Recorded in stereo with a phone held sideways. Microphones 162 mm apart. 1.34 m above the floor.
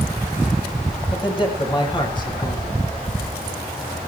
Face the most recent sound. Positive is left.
turn(degrees=30)  # may be behind; listen again after turning